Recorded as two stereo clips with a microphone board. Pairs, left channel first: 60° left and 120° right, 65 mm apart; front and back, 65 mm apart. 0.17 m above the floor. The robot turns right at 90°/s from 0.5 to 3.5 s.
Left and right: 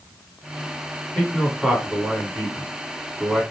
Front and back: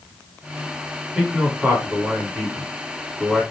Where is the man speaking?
120° left, 1.3 m; by 3.4 s 35° right, 1.3 m.